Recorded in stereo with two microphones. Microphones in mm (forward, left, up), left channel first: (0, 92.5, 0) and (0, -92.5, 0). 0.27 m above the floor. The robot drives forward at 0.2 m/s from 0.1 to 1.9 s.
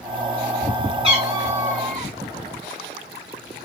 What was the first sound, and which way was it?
A cat meowing, 30° right (ahead or behind).